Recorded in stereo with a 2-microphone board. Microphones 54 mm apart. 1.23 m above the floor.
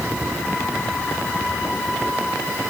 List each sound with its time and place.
Only background noise.